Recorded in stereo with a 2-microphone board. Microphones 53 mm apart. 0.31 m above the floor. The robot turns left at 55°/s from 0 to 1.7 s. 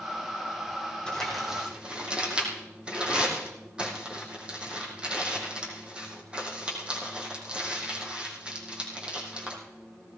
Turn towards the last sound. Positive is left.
turn(degrees=-20)  # may be behind; listen again after turning